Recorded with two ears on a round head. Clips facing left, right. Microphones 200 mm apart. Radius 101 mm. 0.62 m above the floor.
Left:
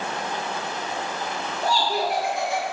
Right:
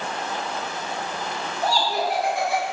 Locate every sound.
1.6 s laughter: 35° right (ahead or behind), 5 m; by 2.6 s 55° right (ahead or behind), 4.5 m